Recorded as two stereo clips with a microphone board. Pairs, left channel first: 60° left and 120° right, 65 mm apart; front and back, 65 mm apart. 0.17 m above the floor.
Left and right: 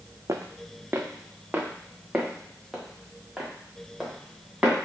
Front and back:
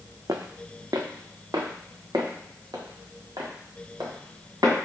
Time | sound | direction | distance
0.3 | footsteps | 155° right | 0.5 m